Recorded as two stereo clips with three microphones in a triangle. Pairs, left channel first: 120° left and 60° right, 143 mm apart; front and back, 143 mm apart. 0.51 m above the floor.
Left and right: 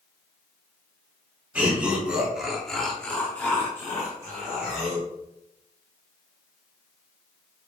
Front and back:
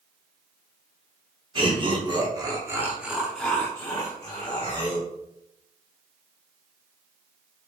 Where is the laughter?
140° right, 1.0 m; by 5.1 s 50° left, 1.3 m.